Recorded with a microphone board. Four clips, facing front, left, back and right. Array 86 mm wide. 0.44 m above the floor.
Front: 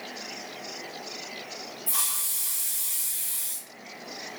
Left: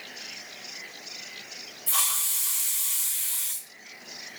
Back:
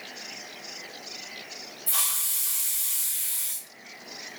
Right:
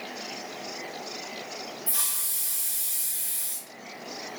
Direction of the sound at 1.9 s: 135° left.